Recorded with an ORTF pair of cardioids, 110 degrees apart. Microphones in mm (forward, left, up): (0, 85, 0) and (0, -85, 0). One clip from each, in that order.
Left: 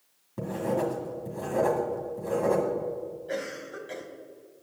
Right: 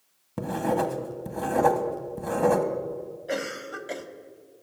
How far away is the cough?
About 1.8 m.